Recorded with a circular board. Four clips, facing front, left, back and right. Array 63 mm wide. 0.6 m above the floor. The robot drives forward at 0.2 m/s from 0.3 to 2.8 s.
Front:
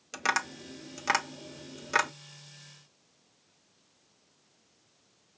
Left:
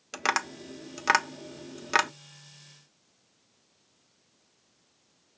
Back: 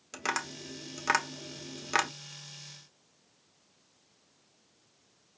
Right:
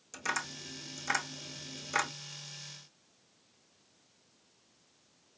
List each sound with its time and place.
0.1 s tapping: 80° left, 0.9 m; by 2.1 s 105° left, 0.9 m